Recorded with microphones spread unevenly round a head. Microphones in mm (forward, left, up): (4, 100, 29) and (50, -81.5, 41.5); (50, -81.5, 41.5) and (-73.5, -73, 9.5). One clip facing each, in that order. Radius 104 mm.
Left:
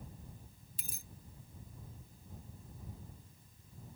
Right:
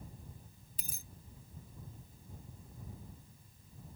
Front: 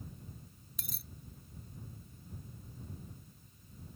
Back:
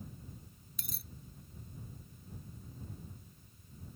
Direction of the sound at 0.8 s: 90° right.